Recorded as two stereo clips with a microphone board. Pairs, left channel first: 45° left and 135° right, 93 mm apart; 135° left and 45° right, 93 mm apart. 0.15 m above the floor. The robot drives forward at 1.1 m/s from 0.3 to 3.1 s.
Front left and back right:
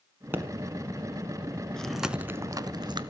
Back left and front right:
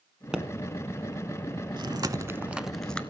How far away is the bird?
I don't hear a bird.